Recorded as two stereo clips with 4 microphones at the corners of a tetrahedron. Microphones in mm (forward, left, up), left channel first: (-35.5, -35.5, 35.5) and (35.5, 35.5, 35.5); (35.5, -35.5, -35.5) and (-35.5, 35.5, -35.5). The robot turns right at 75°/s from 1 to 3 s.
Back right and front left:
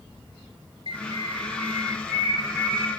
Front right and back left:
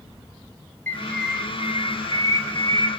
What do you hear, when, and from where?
0.9 s a bird: 25° left, 1.5 m; by 2.9 s 170° left, 1.5 m